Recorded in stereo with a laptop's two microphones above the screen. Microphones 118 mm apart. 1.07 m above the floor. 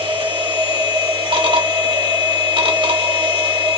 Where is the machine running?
45° right (ahead or behind), 0.9 m.